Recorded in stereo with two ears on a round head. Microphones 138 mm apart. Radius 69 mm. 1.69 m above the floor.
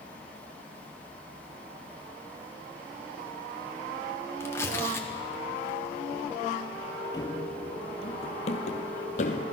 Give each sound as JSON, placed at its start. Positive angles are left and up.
{"t": 4.4, "sound": "tearing paper", "side_deg": 15, "distance_m": 2.0}
{"t": 7.1, "sound": "running footsteps", "side_deg": 25, "distance_m": 2.0}